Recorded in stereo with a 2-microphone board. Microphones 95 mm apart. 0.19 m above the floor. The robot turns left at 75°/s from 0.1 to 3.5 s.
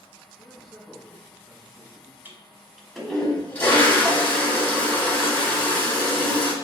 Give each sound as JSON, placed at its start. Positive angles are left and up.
{"t": 0.4, "sound": "a man speaking", "azimuth_deg": -160, "distance_m": 1.4}
{"t": 2.2, "sound": "a toilet flushing", "side_deg": -20, "distance_m": 1.1}